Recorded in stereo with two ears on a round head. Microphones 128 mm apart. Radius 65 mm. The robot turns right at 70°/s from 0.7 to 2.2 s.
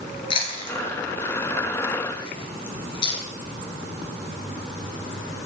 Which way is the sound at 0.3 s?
35° left (ahead or behind).